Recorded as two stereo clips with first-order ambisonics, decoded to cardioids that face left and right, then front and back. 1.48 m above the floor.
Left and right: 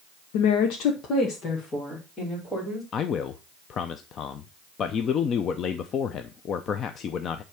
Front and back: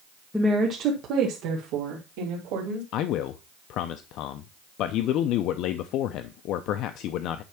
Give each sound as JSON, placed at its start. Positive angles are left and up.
{"t": 0.3, "sound": "a woman speaking", "azimuth_deg": 90, "distance_m": 1.0}
{"t": 2.9, "sound": "a man speaking", "azimuth_deg": 35, "distance_m": 0.5}